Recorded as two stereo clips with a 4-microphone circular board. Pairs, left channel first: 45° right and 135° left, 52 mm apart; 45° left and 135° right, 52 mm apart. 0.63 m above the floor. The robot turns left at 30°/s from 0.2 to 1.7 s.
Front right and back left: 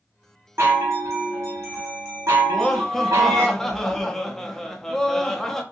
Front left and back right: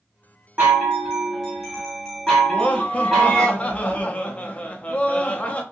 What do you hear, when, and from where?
0.6 s a chime: 165° left, 1.3 m; by 3.5 s 135° left, 1.3 m
2.5 s laughter: 30° left, 0.6 m